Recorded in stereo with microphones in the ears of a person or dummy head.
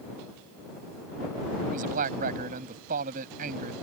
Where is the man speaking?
50° right (ahead or behind).